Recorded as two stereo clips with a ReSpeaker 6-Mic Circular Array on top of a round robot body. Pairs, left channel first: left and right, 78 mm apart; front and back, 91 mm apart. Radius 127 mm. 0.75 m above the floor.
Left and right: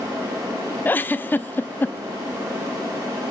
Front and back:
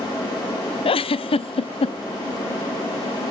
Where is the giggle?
25° left, 0.8 m.